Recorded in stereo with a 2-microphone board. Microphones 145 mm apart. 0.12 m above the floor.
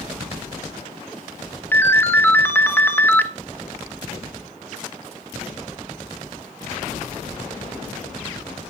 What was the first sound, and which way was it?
A ringtone, 15° left (ahead or behind).